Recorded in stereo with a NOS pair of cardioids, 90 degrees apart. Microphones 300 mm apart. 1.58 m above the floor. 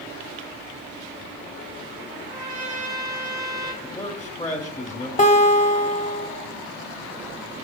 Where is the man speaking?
10° left, 1.0 m.